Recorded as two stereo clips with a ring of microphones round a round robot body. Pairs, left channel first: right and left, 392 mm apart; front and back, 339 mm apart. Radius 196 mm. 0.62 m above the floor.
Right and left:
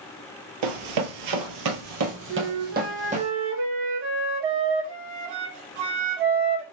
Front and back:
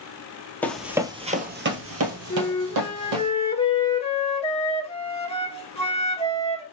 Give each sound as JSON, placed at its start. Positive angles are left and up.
{"t": 0.6, "sound": "running footsteps", "azimuth_deg": 85, "distance_m": 1.0}
{"t": 2.3, "sound": "a flute", "azimuth_deg": 70, "distance_m": 1.4}